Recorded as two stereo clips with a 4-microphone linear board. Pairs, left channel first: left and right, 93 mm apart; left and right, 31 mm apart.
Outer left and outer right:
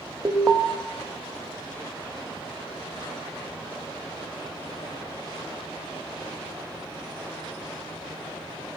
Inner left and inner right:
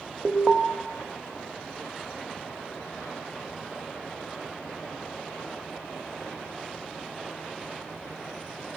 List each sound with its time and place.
0.2 s an alarm: 20° right (ahead or behind), 0.8 m